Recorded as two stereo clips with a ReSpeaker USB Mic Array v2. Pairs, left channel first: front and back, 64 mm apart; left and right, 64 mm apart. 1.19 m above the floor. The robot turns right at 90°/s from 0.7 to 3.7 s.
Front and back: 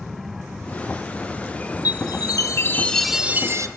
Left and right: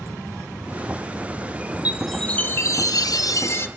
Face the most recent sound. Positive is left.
turn(degrees=145)